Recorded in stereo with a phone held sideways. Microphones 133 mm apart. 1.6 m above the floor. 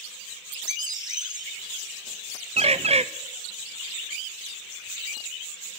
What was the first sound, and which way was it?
A bird, 30° right (ahead or behind).